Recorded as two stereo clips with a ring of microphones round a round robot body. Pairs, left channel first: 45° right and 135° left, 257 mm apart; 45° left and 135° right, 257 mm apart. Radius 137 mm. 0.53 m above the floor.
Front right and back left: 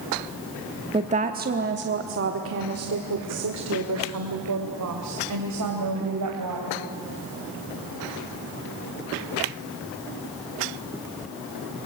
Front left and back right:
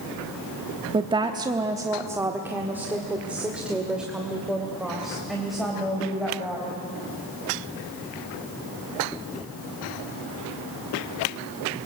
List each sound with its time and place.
0.9 s a woman speaking: 175° left, 0.9 m; by 6.8 s 135° left, 3.5 m